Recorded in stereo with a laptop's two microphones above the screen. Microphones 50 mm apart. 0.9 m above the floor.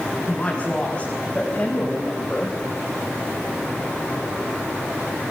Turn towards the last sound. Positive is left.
turn(degrees=30)  # may be behind; listen again after turning